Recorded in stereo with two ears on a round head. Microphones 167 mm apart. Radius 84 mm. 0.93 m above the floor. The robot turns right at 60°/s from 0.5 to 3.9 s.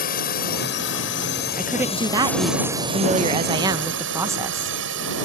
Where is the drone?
50° left (ahead or behind); by 5.2 s 70° right (ahead or behind).